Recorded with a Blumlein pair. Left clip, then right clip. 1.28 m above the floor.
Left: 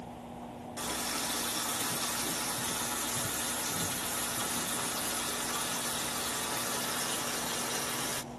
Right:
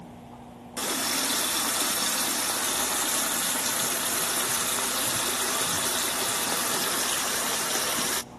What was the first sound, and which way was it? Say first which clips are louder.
A running tap: right 7 dB; 60° right.